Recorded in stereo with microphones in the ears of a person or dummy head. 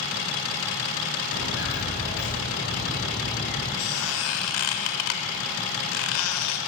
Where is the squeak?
85° left, 4 m.